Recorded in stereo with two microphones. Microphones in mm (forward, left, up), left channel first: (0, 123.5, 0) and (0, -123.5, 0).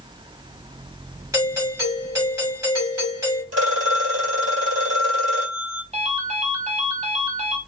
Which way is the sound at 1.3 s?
15° right (ahead or behind).